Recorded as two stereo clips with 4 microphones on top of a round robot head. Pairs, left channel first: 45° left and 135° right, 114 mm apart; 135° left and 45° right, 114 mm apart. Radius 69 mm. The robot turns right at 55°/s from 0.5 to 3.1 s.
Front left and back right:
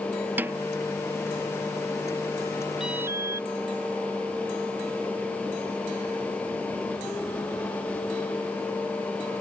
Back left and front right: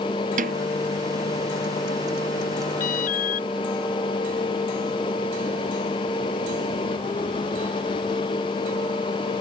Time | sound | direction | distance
0.4 | a snare drum | 60° right | ?
2.8 | an alarm | 140° left | ?